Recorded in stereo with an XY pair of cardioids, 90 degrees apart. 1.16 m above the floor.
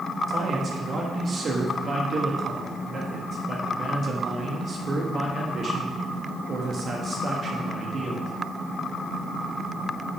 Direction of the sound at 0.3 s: 50° right.